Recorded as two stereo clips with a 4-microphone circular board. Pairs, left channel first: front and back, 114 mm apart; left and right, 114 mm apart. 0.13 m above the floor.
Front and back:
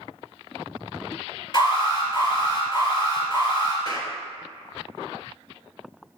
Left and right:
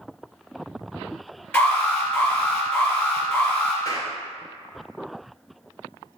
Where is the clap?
40° left, 1.6 m.